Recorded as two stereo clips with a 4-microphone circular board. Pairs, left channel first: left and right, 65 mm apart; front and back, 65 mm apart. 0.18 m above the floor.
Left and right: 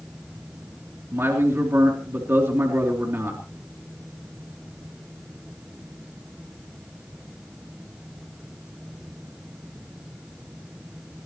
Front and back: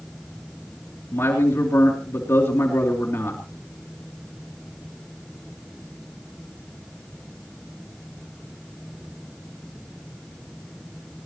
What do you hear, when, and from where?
1.1 s a man speaking: 45° right, 3.5 m